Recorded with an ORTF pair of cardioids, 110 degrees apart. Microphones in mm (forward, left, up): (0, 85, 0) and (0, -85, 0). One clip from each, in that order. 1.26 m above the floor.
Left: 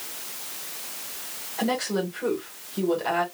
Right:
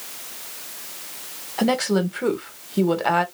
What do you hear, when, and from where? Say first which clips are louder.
1.6 s a woman speaking: right 5 dB; 45° right, 1.4 m